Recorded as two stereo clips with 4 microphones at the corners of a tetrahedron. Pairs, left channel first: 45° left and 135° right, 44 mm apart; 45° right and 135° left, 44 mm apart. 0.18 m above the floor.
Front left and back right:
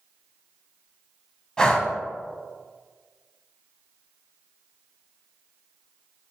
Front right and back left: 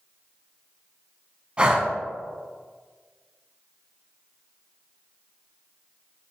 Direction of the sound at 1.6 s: 100° left.